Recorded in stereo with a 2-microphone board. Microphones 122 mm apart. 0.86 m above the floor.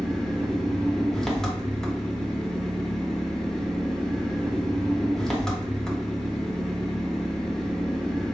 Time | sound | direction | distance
0.0 | an engine running | 5° left (ahead or behind) | 0.9 m